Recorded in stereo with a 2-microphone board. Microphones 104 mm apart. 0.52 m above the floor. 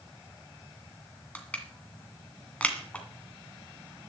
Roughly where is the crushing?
Centre.